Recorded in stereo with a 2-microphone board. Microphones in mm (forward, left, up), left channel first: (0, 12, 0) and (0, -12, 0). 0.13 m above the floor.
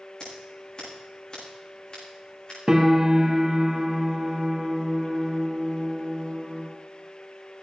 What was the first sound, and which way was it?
Scissors, 30° left (ahead or behind).